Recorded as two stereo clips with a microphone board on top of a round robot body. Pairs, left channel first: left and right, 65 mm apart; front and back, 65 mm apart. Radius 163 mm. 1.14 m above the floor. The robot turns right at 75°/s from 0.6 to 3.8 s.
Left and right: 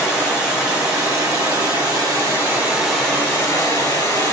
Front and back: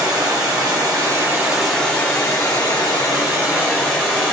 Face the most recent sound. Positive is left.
turn(degrees=65)